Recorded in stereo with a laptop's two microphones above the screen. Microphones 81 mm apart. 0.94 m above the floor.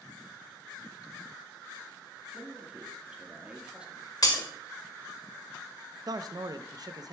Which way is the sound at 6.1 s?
50° right (ahead or behind).